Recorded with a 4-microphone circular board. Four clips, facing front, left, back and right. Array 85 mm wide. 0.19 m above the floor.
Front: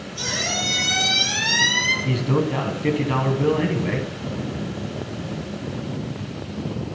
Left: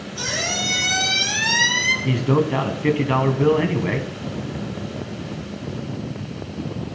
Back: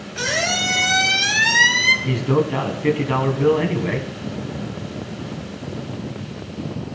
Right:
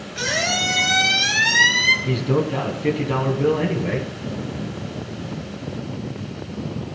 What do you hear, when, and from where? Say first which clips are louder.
0.2 s a squeak: right 4 dB, back 6 dB; 145° right, 2.0 m
2.0 s a man speaking: left 6 dB, back 1 dB; 110° left, 1.1 m